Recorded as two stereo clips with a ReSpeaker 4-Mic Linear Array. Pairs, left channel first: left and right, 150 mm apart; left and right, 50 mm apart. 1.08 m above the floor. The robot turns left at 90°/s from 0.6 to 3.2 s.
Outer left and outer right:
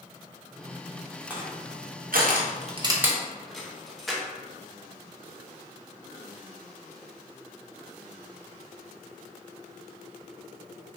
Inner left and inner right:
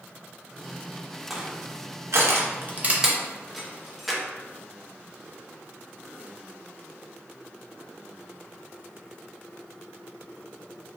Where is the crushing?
10° right (ahead or behind), 0.5 m; by 4.2 s centre (ahead or behind), 0.5 m.